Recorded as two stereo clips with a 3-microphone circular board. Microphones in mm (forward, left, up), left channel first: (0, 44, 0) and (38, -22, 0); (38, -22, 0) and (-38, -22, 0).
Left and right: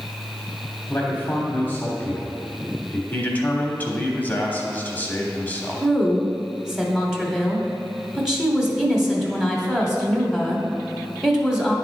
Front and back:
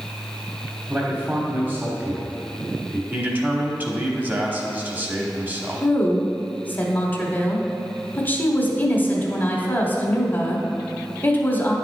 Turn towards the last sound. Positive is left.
turn(degrees=20)